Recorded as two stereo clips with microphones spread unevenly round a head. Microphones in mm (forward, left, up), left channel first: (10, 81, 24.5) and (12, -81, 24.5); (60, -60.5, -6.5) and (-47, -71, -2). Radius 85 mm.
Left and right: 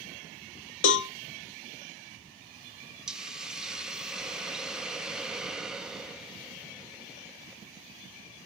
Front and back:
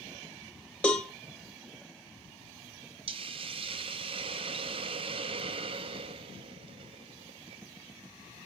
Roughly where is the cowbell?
Left.